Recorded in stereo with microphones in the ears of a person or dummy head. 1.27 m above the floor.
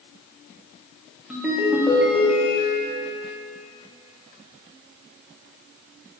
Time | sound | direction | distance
1.3 | a ringtone | 5° right (ahead or behind) | 1.4 m